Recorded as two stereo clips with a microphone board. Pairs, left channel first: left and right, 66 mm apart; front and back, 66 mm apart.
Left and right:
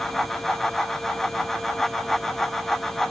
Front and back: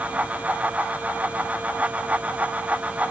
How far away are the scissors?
I don't hear scissors.